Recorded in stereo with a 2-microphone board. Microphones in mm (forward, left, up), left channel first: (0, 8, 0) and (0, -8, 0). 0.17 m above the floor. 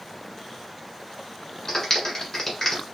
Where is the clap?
30° left (ahead or behind), 1.6 m.